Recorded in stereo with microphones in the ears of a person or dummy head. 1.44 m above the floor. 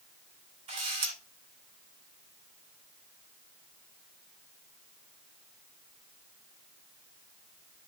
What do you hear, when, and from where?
0.7 s a camera shutter: 35° right (ahead or behind), 1.8 m